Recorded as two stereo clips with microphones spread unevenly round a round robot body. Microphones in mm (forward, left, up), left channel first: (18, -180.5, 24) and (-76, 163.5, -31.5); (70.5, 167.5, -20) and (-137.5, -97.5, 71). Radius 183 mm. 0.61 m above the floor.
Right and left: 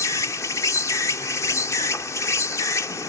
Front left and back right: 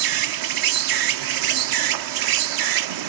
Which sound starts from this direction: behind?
An insect, at 0.0 s.